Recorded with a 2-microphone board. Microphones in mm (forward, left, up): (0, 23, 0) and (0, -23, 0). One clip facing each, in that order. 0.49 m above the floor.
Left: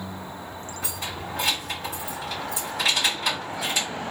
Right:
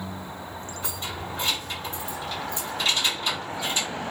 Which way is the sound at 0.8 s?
80° left.